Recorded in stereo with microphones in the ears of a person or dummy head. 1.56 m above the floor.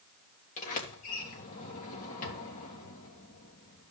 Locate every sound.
0.6 s a sliding door: 45° left (ahead or behind), 3 m